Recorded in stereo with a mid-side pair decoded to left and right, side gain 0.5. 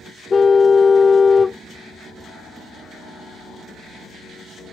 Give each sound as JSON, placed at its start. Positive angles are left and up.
{"t": 0.3, "sound": "a car horn", "azimuth_deg": 30}